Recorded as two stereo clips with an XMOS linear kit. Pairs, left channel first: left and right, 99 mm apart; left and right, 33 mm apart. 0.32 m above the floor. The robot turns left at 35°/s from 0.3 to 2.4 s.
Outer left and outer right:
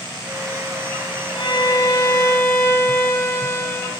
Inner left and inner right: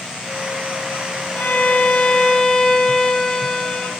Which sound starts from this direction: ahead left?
A violin, at 1.4 s.